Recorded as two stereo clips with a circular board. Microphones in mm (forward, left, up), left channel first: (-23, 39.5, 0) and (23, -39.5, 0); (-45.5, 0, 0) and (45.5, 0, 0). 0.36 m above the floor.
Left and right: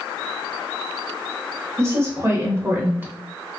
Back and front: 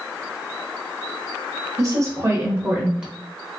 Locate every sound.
1.8 s a woman speaking: 15° right, 1.3 m; by 3.1 s 80° right, 1.0 m